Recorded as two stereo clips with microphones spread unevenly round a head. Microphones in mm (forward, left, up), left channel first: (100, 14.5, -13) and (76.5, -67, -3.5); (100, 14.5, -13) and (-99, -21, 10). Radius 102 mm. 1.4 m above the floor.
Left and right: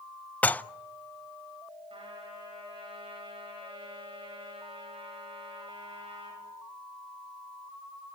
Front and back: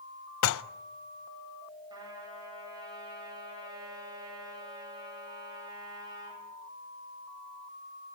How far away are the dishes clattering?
About 0.7 m.